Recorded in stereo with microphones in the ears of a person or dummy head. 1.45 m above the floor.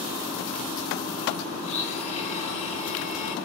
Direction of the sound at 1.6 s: 35° left (ahead or behind).